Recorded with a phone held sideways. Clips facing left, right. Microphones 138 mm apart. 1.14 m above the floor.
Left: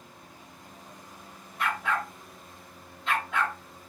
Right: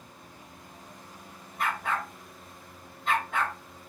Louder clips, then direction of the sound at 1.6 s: Left 1 dB; 45° right (ahead or behind).